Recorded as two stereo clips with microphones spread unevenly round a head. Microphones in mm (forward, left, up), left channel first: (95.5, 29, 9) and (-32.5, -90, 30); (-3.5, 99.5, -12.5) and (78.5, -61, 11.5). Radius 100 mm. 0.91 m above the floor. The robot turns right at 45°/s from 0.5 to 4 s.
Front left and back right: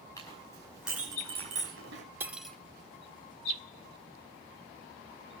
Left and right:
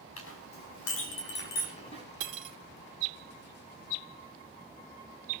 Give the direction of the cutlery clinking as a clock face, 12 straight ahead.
2 o'clock.